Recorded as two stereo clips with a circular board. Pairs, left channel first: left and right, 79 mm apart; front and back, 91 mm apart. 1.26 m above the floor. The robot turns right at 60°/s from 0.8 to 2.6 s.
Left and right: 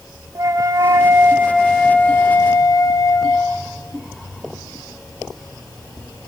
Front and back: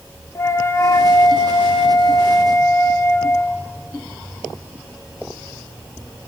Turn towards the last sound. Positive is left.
turn(degrees=55)